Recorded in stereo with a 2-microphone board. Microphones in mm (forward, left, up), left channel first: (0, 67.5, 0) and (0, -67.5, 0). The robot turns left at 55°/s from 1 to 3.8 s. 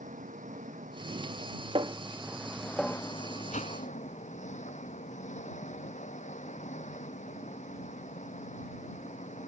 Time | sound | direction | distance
0.0 | an engine running | 95° right | ?
1.8 | a snare drum | 50° right (ahead or behind) | ?
3.5 | a whoosh | 75° left (ahead or behind) | ?